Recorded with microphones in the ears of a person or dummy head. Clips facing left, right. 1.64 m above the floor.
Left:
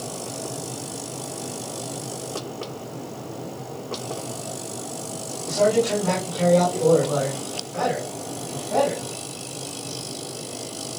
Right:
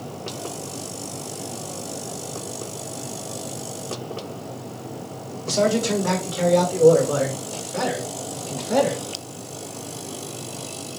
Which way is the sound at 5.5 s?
50° right (ahead or behind).